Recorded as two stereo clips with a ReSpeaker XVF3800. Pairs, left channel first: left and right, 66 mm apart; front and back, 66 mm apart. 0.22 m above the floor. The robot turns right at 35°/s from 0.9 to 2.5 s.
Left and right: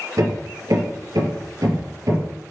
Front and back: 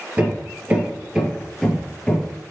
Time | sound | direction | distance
0.2 | hammering | 110° right | 3.5 m